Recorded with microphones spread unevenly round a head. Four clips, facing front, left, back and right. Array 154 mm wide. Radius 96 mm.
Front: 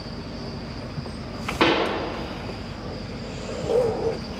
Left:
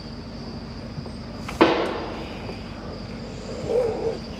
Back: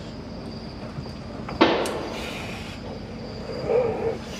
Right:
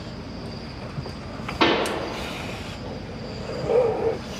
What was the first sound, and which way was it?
A pop, 115° left.